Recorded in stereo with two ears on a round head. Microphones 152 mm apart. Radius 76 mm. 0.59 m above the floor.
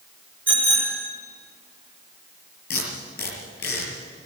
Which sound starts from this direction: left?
Tape being pulled, at 2.7 s.